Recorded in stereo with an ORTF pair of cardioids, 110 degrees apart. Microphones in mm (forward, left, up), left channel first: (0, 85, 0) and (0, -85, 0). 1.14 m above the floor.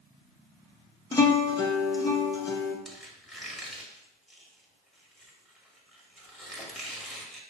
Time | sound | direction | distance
1.1 | a guitar | 20° left | 0.8 m
2.9 | a squeak | straight ahead | 1.2 m